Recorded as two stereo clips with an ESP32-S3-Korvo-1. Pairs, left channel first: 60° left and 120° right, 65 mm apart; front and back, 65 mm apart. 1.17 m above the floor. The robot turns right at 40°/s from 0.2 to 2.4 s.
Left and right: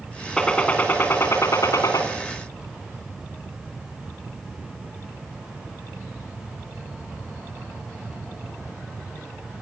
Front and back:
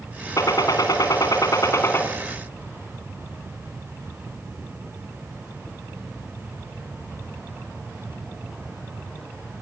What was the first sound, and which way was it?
A gunshot, 20° right.